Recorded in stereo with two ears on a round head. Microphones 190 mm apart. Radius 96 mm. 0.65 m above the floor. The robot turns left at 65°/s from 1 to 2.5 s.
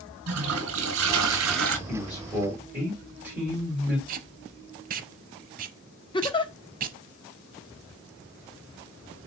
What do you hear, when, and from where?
0.3 s a toilet flushing: 70° right, 3 m; by 1.8 s 120° right, 3 m
1.9 s a man speaking: 30° left, 3 m; by 4.0 s 10° right, 3 m
4.1 s tape being pulled: 40° right (ahead or behind), 0.7 m
6.1 s a giggle: 25° left (ahead or behind), 0.9 m